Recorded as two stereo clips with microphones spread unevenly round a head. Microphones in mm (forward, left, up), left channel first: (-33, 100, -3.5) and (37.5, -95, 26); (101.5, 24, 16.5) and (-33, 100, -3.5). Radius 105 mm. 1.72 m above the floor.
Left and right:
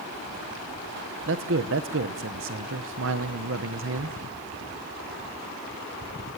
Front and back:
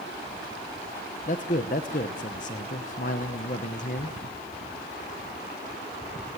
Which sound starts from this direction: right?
A man speaking, at 1.3 s.